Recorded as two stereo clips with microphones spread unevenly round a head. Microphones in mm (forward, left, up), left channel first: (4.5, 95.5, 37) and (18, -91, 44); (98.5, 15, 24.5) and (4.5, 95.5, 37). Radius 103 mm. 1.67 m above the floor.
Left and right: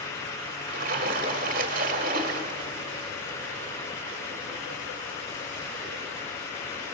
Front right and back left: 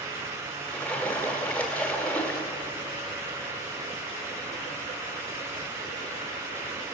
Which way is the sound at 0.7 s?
130° right.